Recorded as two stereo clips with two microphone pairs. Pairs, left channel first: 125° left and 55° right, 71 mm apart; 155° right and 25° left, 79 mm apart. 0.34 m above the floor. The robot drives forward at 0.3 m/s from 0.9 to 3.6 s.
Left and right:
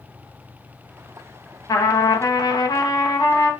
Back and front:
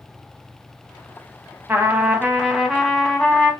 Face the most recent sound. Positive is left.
turn(degrees=130)